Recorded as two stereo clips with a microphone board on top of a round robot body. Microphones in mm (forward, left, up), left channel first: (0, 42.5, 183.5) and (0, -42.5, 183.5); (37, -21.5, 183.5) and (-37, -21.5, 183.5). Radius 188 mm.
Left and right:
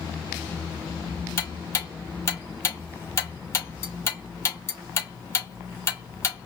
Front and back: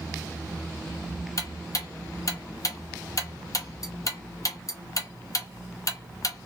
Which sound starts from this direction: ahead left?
Ticking, at 1.4 s.